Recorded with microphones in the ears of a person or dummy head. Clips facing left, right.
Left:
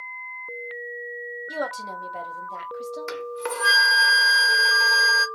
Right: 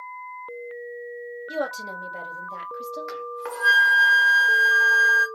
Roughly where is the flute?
Left.